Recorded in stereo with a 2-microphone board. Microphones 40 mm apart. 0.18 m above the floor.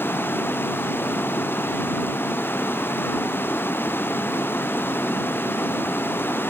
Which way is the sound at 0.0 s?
60° left (ahead or behind).